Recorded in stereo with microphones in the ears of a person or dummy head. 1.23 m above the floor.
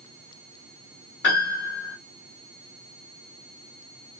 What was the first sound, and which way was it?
A piano, 60° left (ahead or behind).